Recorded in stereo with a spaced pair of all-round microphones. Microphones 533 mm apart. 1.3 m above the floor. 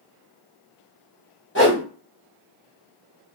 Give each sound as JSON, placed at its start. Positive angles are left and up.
{"t": 1.6, "sound": "a whoosh", "side_deg": 20, "distance_m": 1.2}